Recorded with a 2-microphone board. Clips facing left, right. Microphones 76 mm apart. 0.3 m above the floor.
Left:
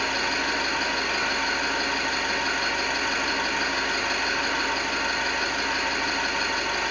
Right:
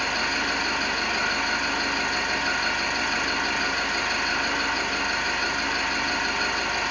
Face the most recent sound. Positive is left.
turn(degrees=-10)  # may be behind; listen again after turning